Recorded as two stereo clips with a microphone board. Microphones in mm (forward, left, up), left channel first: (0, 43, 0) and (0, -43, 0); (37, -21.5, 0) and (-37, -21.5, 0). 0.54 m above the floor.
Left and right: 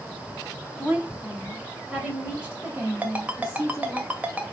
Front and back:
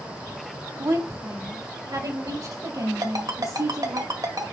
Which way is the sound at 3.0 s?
160° right.